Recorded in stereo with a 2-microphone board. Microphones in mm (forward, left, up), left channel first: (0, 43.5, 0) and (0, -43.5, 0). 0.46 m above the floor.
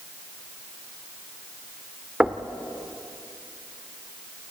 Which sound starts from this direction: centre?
Knocking, at 2.2 s.